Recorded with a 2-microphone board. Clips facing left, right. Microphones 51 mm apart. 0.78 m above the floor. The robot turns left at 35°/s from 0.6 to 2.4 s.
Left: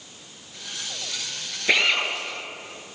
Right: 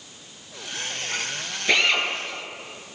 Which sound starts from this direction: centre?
A drill, at 1.7 s.